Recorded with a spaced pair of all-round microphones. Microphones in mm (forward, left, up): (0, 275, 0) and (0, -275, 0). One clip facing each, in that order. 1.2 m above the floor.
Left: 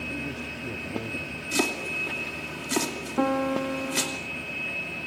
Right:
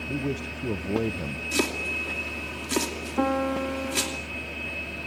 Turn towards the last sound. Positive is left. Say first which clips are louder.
# even
turn(degrees=0)  # may be behind; listen again after turning